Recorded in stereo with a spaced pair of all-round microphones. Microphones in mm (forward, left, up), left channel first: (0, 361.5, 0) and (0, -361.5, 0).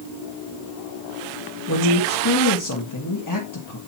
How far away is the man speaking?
About 1.4 m.